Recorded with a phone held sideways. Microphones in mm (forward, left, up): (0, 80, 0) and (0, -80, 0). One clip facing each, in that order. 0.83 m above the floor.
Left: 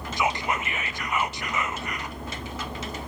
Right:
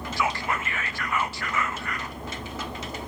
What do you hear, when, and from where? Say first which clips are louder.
0.2 s whispering: left 2 dB; 20° left (ahead or behind), 0.7 m